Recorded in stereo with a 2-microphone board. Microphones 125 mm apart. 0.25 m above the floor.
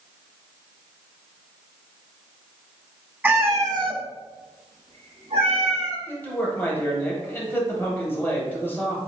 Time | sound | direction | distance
3.2 | a cat meowing | 10° right (ahead or behind) | 0.5 m
6.1 | a man speaking | 20° left (ahead or behind) | 0.9 m